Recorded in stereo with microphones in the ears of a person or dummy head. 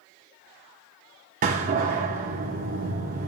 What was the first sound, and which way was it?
A door slam, 40° right (ahead or behind).